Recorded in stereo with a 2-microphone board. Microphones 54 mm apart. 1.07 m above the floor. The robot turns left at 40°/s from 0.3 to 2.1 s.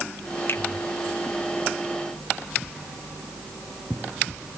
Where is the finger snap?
55° left (ahead or behind), 2.0 m; by 0.6 s 60° left (ahead or behind), 2.0 m.